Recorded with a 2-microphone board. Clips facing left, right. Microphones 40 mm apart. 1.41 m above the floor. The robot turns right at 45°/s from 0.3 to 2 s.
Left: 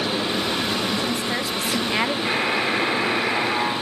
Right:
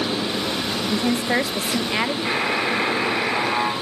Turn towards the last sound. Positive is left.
turn(degrees=0)  # may be behind; listen again after turning